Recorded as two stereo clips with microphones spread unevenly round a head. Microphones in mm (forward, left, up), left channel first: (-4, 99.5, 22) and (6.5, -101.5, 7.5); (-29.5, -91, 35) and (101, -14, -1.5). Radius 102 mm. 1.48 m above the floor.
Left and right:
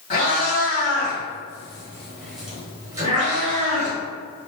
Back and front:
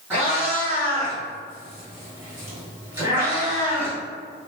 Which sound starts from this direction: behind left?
A cat meowing, at 0.1 s.